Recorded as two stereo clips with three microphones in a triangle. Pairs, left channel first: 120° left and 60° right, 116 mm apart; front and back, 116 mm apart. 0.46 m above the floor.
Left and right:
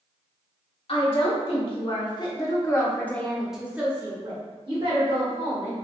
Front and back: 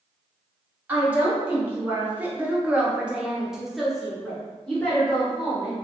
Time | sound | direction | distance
0.9 | a woman speaking | 110° left | 1.5 m